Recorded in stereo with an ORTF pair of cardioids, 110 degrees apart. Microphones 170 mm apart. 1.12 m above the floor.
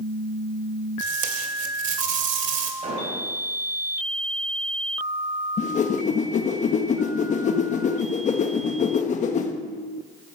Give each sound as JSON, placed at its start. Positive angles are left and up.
{"t": 1.0, "sound": "tape being pulled", "azimuth_deg": -50, "distance_m": 2.0}
{"t": 2.8, "sound": "an explosion", "azimuth_deg": -45, "distance_m": 4.5}
{"t": 5.6, "sound": "a whoosh", "azimuth_deg": 45, "distance_m": 1.4}